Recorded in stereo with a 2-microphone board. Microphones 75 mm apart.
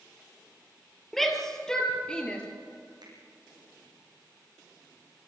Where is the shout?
5° left (ahead or behind), 4.5 m; by 2.4 s 15° left (ahead or behind), 4.5 m.